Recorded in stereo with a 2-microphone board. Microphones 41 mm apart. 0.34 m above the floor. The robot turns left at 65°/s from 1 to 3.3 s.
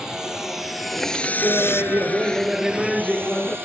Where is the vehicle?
15° right (ahead or behind); by 3.7 s 80° right.